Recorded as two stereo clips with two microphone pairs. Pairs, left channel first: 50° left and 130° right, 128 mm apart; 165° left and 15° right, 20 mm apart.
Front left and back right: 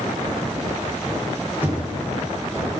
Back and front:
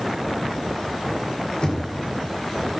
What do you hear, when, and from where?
1.6 s knocking: 160° left, 2 m